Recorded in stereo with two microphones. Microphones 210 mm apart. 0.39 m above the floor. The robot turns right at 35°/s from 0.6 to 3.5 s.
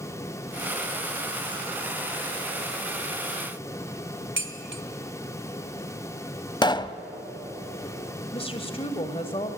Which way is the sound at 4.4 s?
65° right (ahead or behind).